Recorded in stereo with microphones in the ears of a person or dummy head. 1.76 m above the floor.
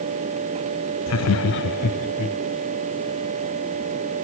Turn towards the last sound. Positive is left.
turn(degrees=35)  # may be behind; listen again after turning